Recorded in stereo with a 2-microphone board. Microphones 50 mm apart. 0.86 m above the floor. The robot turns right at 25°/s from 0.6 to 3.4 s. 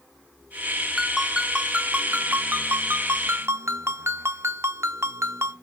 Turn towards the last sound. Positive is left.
turn(degrees=-115)